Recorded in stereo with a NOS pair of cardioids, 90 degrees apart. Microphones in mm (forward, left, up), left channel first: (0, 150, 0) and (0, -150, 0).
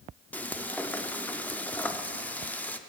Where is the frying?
5° left, 0.6 m.